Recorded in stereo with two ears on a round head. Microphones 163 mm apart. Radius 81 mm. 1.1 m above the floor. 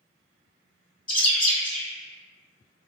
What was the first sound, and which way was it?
A bird, 25° left (ahead or behind).